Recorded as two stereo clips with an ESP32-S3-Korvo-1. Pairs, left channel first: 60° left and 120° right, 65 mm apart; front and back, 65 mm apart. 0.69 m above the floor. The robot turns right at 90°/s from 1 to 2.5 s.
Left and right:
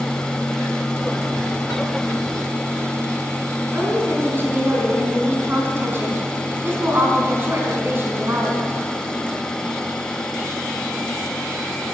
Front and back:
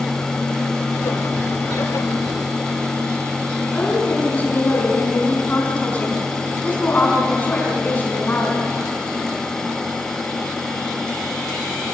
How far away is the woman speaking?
About 6 m.